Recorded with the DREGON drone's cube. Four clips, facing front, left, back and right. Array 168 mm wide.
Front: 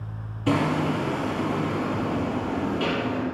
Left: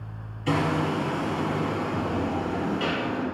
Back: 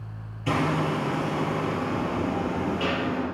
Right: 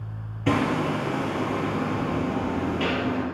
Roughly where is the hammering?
Right.